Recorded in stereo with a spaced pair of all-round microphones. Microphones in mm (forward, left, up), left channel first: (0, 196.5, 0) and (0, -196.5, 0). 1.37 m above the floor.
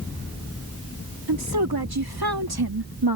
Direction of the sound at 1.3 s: 75° right (ahead or behind).